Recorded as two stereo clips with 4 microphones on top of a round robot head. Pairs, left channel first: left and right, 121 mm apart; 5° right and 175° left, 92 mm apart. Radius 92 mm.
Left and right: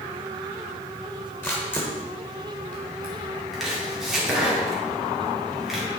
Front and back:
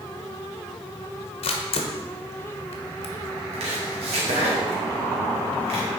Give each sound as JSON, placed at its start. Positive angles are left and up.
{"t": 1.4, "sound": "a camera shutter", "azimuth_deg": 10, "distance_m": 1.1}
{"t": 3.5, "sound": "chopping", "azimuth_deg": -175, "distance_m": 2.0}